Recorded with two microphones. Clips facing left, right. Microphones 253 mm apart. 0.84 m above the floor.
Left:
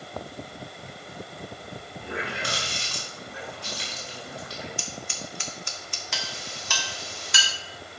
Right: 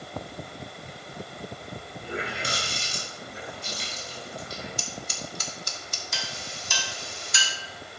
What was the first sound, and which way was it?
A running tap, 70° left (ahead or behind).